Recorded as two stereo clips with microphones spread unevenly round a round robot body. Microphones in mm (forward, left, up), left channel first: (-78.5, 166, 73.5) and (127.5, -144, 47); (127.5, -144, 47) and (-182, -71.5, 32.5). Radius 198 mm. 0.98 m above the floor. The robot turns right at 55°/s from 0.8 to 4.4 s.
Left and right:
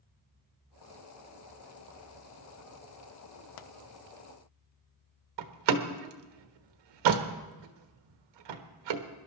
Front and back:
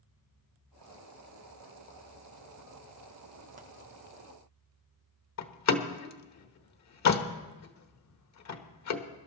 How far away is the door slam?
About 1.2 m.